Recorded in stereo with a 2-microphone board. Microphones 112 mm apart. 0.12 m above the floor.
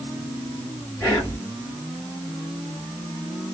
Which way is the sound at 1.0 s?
15° left (ahead or behind).